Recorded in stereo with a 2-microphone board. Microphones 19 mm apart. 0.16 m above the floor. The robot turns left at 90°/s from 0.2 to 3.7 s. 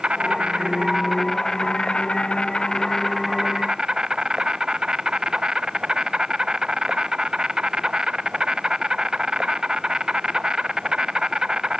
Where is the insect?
85° right, 0.9 m; by 11.8 s 40° right, 0.9 m.